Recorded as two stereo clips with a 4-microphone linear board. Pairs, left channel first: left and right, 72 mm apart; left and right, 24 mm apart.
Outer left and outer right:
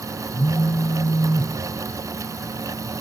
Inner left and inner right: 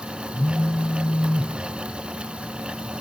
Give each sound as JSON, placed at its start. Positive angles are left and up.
{"t": 0.3, "sound": "a phone buzzing", "side_deg": 85, "distance_m": 1.3}